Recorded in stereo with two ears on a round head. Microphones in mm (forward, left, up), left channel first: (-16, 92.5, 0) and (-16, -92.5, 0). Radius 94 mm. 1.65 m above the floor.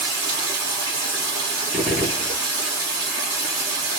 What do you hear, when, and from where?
0.0 s running water: 20° right (ahead or behind), 1.4 m
1.7 s a gunshot: 5° left (ahead or behind), 0.9 m